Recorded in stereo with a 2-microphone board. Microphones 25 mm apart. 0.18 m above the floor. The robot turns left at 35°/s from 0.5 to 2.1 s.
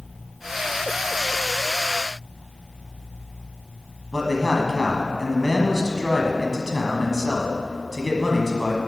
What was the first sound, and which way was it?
A man speaking, 10° right (ahead or behind).